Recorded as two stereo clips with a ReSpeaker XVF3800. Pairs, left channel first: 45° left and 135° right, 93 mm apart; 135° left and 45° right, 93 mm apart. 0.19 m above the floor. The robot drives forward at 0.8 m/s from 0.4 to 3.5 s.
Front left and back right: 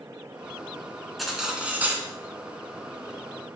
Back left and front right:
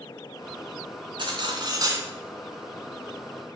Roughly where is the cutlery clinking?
Ahead right.